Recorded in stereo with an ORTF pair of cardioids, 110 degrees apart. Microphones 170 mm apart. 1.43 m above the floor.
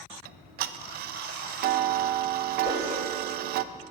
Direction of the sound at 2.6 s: 35° left.